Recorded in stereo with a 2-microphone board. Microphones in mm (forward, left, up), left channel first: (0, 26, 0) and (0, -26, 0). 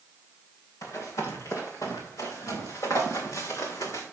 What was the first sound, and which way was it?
Running footsteps, 75° left (ahead or behind).